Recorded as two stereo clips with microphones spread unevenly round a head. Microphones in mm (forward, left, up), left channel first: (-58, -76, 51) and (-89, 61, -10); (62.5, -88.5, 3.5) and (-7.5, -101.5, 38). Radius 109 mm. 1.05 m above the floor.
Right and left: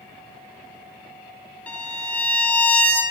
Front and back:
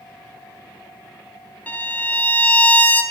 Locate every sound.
1.7 s a violin: 85° right, 0.6 m